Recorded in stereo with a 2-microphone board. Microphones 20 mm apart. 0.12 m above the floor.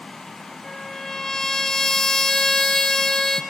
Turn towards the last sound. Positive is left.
turn(degrees=10)  # may be behind; listen again after turning